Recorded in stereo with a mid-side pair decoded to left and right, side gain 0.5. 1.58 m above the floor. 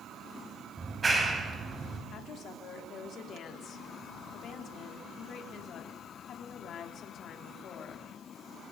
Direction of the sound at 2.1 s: 60° left.